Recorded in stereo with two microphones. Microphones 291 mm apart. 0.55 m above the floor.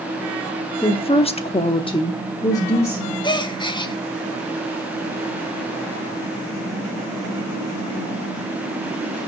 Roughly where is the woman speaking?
Centre.